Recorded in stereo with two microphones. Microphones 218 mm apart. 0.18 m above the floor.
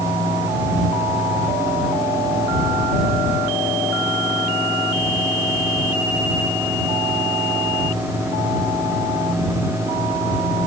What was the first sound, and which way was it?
Only background noise.